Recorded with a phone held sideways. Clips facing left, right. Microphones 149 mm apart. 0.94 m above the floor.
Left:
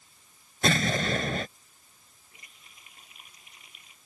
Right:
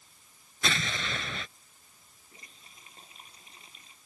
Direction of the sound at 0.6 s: 45° left (ahead or behind).